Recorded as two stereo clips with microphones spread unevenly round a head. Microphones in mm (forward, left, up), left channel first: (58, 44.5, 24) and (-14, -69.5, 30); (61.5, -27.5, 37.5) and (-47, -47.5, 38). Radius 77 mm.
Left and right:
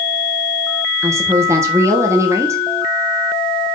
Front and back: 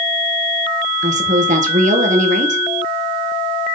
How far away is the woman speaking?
About 1.3 m.